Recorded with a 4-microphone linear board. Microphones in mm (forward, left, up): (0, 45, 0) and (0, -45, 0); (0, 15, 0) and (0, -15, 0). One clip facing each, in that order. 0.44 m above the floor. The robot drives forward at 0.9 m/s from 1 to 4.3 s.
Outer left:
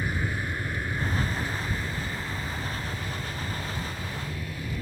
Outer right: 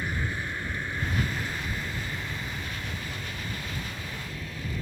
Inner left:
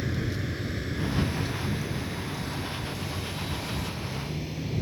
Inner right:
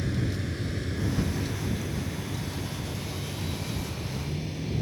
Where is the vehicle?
10° left (ahead or behind); by 4.8 s 5° left (ahead or behind).